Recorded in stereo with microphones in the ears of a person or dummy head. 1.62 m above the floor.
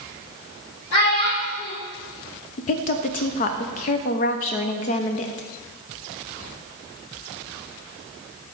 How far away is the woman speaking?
About 0.6 m.